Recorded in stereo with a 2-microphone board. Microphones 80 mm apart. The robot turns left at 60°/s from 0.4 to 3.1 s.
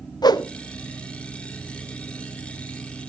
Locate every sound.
0.2 s a whoosh: 60° left (ahead or behind), 0.5 m